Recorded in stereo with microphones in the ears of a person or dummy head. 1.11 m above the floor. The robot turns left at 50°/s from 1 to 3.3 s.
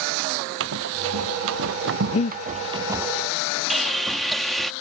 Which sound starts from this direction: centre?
Sawing, at 3.7 s.